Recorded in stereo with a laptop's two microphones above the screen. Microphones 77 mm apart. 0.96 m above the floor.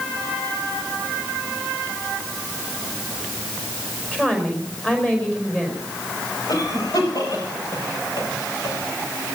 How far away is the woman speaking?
About 5 m.